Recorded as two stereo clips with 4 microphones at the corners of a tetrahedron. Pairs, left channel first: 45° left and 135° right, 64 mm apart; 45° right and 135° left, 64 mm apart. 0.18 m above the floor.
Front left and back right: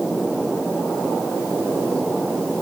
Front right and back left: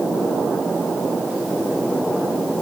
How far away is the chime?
No chime in this recording.